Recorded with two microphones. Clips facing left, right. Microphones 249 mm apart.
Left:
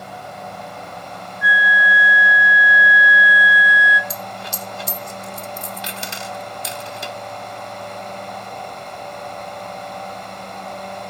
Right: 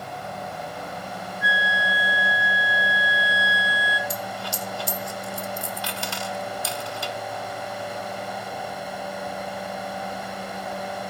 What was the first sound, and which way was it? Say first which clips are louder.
A flute: left 5 dB; 30° right (ahead or behind).